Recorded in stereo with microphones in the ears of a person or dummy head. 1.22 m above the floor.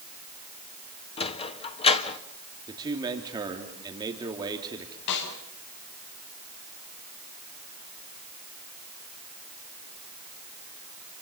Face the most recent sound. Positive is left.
turn(degrees=65)  # may be behind; listen again after turning